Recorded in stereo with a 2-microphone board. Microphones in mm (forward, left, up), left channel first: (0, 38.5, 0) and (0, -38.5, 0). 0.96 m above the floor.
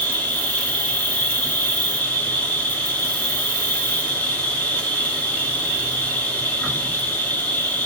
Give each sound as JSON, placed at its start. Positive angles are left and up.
{"t": 0.0, "sound": "an insect", "side_deg": 20, "distance_m": 1.5}